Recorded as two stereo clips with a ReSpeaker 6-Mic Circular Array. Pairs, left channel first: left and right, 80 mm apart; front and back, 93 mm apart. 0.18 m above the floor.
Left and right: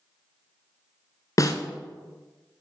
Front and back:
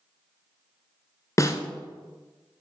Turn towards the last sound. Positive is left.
turn(degrees=50)